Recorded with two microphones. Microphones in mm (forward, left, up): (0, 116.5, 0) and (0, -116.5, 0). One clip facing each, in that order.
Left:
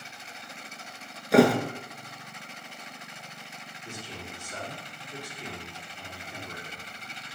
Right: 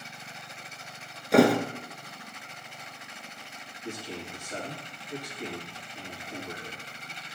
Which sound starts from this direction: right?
A man speaking, at 3.8 s.